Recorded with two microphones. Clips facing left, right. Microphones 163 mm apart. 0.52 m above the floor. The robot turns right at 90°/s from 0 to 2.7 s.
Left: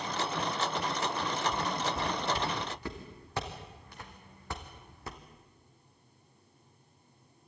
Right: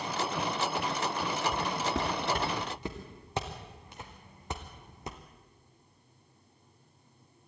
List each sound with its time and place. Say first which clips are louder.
1.5 s footsteps: right 1 dB; 50° right (ahead or behind), 4.5 m; by 5.2 s 20° right (ahead or behind), 2 m